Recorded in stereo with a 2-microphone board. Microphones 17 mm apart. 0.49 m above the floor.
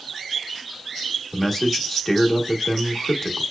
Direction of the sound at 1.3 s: 15° left (ahead or behind).